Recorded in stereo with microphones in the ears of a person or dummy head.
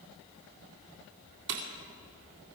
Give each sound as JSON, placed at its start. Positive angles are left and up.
{"t": 1.5, "sound": "breaking glass", "side_deg": -65, "distance_m": 2.5}